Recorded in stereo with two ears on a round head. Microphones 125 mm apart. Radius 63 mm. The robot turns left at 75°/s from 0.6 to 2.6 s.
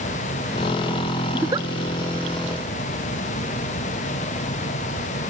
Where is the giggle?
10° right (ahead or behind); by 1.7 s 35° right (ahead or behind).